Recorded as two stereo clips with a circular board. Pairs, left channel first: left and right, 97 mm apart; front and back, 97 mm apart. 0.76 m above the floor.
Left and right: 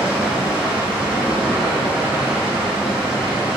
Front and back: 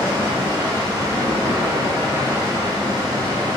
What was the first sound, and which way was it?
Running water, 170° right.